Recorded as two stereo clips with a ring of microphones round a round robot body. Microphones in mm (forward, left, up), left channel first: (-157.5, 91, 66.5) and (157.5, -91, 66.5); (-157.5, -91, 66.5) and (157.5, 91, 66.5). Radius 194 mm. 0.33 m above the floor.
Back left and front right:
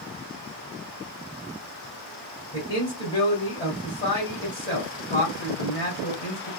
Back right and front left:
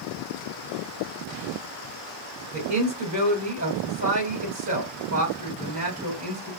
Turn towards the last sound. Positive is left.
turn(degrees=75)